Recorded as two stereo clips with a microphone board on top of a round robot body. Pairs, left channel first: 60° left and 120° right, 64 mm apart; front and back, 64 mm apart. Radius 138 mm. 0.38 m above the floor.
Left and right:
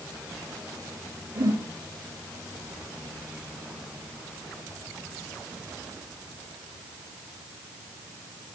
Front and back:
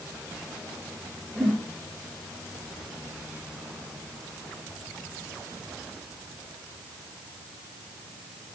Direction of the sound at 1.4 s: 90° right.